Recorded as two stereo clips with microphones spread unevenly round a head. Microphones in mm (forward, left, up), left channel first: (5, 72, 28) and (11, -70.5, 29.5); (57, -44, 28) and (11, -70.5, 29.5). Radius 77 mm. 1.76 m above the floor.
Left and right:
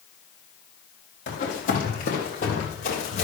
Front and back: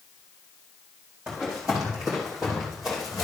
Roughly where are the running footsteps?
Behind left.